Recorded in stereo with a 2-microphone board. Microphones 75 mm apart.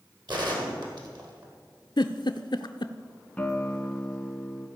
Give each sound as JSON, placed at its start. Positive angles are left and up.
{"t": 0.3, "sound": "a gunshot", "side_deg": -70, "distance_m": 2.0}
{"t": 2.0, "sound": "a giggle", "side_deg": 80, "distance_m": 0.5}
{"t": 3.4, "sound": "a guitar", "side_deg": 15, "distance_m": 1.0}